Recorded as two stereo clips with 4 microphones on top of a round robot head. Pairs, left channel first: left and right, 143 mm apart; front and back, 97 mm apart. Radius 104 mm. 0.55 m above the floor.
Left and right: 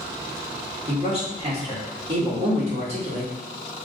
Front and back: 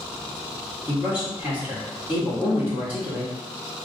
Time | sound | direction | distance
0.9 | a man speaking | 110° right | 1.6 m